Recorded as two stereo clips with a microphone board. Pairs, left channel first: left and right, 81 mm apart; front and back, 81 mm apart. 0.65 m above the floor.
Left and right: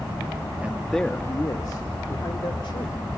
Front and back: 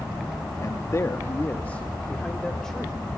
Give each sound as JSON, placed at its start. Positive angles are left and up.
{"t": 0.6, "sound": "a man speaking", "azimuth_deg": -25, "distance_m": 0.8}